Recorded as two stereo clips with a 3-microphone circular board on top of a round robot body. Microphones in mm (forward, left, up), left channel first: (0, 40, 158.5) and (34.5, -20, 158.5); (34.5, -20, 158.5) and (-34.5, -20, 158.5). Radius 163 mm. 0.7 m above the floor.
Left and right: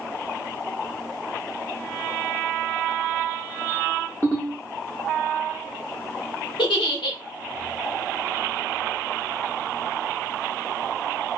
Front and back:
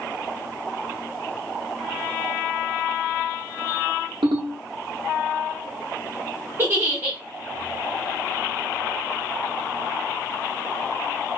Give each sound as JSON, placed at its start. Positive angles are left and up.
{"t": 4.2, "sound": "a ringtone", "azimuth_deg": -175, "distance_m": 0.6}
{"t": 6.6, "sound": "a giggle", "azimuth_deg": 120, "distance_m": 0.8}